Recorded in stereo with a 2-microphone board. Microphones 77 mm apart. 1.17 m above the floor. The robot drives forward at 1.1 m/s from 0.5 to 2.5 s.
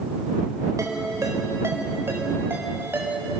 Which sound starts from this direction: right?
A ringtone, at 0.8 s.